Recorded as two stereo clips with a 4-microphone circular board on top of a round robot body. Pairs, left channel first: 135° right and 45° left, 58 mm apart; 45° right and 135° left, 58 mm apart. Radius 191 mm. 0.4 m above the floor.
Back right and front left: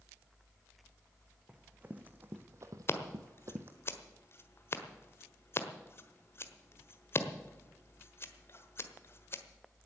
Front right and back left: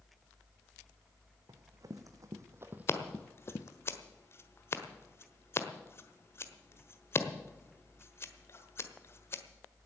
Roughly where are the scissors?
Right.